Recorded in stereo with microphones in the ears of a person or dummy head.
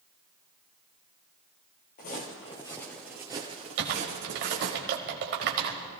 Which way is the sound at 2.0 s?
35° left (ahead or behind).